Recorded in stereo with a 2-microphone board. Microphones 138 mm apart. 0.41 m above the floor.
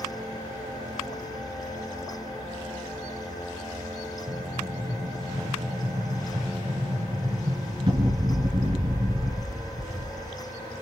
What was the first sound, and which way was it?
An explosion, 35° right (ahead or behind).